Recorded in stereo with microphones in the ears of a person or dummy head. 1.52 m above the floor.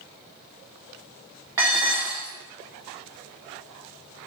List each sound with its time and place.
1.6 s dishes clattering: 10° right (ahead or behind), 0.6 m